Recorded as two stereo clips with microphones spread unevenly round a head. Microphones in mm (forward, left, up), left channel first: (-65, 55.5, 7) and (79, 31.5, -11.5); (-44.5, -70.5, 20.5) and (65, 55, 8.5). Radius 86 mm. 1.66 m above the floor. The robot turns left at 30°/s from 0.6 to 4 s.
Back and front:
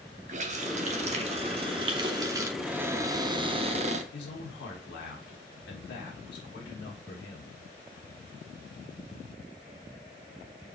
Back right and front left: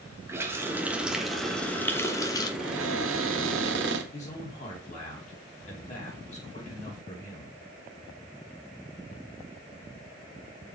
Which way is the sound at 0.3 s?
25° right.